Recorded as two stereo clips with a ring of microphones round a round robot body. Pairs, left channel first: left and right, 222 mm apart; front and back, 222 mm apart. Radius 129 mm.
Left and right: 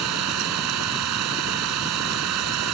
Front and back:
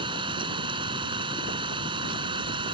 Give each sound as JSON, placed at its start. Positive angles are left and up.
{"t": 0.0, "sound": "an engine running", "azimuth_deg": -110}